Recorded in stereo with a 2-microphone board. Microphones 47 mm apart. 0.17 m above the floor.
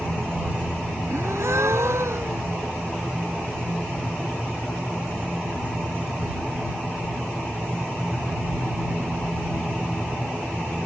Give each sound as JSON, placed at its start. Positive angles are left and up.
{"t": 1.1, "sound": "a gasp", "side_deg": -70}